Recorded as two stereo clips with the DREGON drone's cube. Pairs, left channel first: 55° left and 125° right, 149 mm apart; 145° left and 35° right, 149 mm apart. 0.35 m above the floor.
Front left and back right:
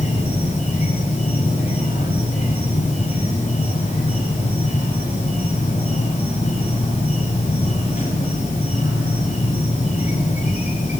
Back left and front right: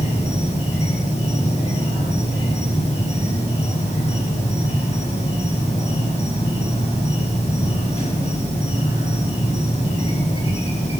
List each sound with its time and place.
0.0 s an insect: 100° left, 5.5 m